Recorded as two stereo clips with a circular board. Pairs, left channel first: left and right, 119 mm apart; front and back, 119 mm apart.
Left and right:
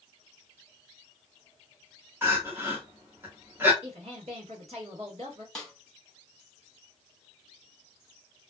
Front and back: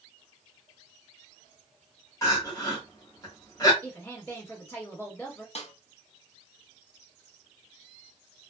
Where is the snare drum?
5° left, 1.0 m.